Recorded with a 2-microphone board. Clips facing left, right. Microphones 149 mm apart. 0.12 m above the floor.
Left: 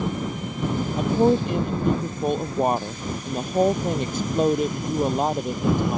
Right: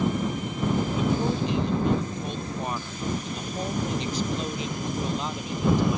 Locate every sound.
1.0 s a woman speaking: 55° left (ahead or behind)